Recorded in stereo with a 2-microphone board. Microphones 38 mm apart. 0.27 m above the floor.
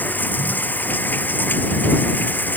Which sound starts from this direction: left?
Running water, at 0.0 s.